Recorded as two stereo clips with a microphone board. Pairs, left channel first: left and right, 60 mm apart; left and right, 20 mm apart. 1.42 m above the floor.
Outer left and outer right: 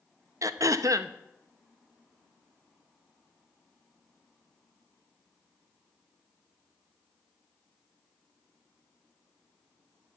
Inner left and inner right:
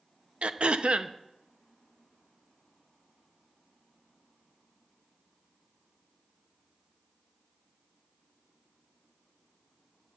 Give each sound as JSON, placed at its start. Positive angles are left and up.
{"t": 0.4, "sound": "throat clearing", "side_deg": -60, "distance_m": 0.5}